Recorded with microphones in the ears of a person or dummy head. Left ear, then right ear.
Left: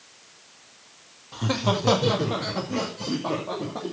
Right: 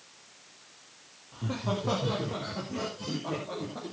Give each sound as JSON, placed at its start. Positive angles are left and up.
{"t": 1.3, "sound": "laughter", "side_deg": 85, "distance_m": 2.5}